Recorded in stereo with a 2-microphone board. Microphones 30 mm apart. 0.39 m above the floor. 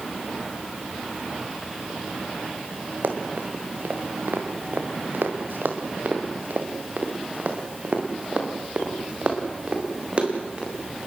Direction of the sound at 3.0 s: 65° right (ahead or behind).